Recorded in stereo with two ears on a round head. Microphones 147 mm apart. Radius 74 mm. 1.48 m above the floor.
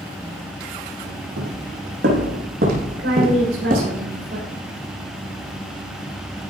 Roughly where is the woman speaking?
Right.